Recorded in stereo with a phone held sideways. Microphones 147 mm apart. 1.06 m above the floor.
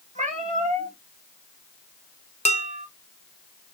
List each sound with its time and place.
0.1 s a cat meowing: 60° right (ahead or behind), 2 m
2.5 s dishes clattering: 60° left (ahead or behind), 0.7 m